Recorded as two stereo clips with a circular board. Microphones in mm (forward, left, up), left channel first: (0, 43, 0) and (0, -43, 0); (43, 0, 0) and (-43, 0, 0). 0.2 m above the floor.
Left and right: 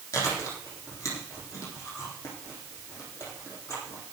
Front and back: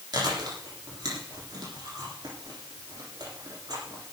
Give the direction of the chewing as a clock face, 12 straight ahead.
7 o'clock.